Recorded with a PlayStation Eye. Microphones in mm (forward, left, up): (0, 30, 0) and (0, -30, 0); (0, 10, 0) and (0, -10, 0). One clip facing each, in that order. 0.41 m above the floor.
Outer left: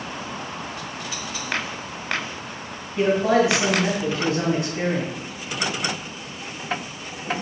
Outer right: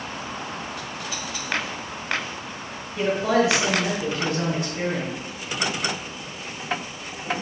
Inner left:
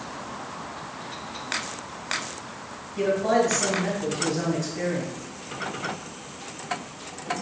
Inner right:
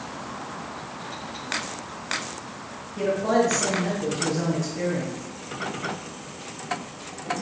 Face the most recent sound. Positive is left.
turn(degrees=5)  # may be behind; listen again after turning